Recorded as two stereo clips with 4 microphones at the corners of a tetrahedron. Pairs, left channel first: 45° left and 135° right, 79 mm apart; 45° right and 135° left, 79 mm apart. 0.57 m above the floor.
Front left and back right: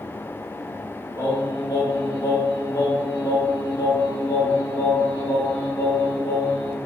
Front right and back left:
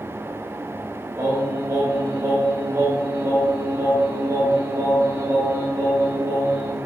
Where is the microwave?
I don't hear a microwave.